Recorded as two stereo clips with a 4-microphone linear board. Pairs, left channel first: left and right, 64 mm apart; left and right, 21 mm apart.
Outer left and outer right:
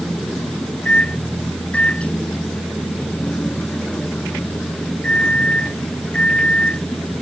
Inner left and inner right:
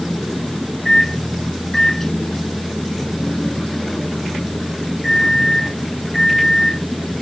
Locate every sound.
0.8 s a microwave: 20° left (ahead or behind)